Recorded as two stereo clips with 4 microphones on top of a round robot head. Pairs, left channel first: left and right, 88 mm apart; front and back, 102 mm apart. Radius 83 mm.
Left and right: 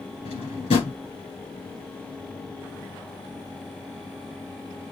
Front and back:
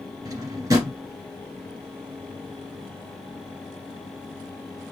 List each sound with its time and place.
0.2 s a drawer: 120° left, 1.9 m